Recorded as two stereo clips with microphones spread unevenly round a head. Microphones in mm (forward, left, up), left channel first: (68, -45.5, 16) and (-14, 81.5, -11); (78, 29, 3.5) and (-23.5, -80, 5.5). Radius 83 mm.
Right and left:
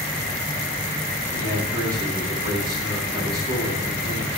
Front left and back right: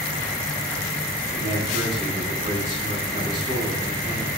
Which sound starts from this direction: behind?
A man speaking, at 1.3 s.